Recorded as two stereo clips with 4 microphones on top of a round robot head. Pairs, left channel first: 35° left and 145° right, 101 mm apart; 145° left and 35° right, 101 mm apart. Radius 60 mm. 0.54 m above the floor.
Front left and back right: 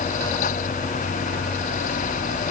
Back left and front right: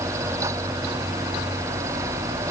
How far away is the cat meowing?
No cat meowing in this recording.